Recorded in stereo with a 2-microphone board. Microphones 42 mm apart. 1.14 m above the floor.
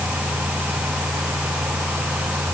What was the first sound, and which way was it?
Only background noise.